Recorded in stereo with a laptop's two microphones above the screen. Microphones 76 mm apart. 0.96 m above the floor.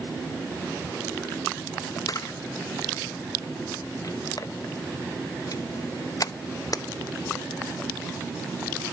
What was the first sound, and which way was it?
A camera shutter, 55° left (ahead or behind).